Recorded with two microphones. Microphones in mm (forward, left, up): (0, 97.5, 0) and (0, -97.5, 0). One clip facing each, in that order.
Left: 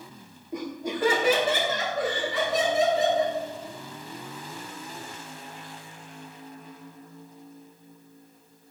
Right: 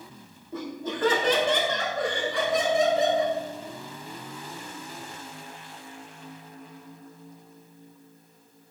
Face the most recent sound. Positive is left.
turn(degrees=0)  # may be behind; listen again after turning